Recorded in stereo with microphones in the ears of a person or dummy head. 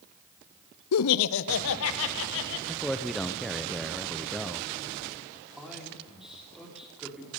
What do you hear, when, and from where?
0.9 s laughter: 85° left, 0.5 m; by 2.6 s 75° left (ahead or behind), 2.5 m
2.7 s a man speaking: centre (ahead or behind), 0.5 m
5.6 s a man speaking: centre (ahead or behind), 5.5 m